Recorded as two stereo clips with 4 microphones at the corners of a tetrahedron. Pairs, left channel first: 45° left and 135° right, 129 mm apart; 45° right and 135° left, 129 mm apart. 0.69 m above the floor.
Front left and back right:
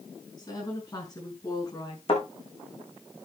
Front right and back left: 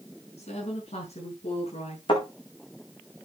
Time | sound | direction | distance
0.4 | a woman speaking | 15° right | 7.5 m
2.1 | a thud | straight ahead | 6.5 m